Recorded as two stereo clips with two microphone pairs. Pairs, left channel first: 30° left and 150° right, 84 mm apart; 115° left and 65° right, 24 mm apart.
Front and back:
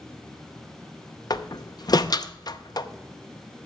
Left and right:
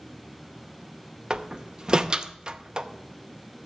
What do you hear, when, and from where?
1.3 s a door slam: 10° right, 0.6 m